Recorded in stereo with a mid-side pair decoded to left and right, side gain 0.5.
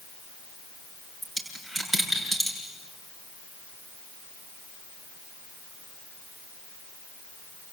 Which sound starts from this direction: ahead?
A dropped coin, at 1.2 s.